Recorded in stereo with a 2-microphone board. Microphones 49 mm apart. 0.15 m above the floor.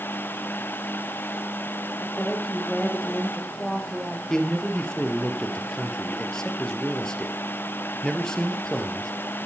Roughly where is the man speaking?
Centre.